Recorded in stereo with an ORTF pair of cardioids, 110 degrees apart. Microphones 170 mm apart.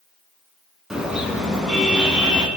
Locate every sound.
0.9 s a car horn: 5° right, 5.5 m